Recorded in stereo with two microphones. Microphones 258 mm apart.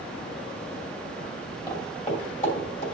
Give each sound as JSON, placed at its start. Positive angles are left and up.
{"t": 1.7, "sound": "footsteps", "side_deg": 15, "distance_m": 2.0}